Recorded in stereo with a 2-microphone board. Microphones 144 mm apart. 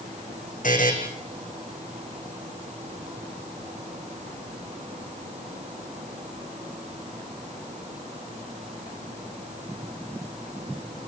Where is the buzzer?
65° left (ahead or behind), 4 m.